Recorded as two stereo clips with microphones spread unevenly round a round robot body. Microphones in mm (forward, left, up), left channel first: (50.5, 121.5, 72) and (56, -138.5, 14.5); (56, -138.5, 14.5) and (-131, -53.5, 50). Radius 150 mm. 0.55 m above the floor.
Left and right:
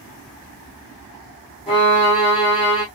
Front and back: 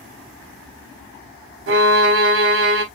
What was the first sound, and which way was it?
A violin, 165° left.